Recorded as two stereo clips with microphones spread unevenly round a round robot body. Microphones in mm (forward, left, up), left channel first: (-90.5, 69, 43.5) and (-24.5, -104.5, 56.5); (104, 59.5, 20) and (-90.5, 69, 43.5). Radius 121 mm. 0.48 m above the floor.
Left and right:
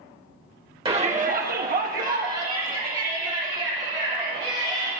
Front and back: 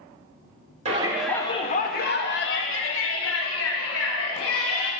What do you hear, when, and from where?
0.8 s a shout: 130° right, 0.9 m; by 4.9 s 5° right, 4 m